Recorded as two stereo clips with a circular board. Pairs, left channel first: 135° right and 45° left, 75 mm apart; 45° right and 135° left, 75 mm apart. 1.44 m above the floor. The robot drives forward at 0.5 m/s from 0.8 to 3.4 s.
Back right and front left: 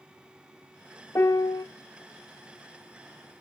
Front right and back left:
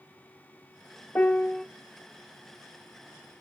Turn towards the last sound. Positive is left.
turn(degrees=-160)